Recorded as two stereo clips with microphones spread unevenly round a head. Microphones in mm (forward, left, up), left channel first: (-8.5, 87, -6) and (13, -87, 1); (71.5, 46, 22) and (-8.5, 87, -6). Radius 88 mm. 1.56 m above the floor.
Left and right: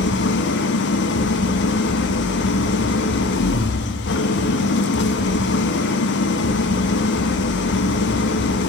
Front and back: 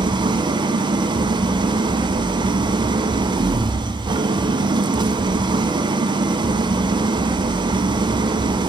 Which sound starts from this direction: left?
An engine running, at 0.0 s.